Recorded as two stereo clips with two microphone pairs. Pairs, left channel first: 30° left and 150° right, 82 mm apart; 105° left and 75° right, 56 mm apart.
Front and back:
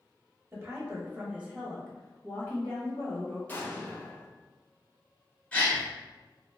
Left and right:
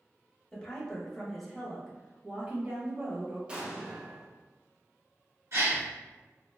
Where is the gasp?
45° right, 1.3 m.